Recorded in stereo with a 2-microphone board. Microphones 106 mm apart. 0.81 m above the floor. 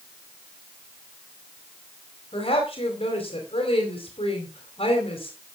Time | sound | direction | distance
2.3 | a woman speaking | 60° left (ahead or behind) | 4.5 m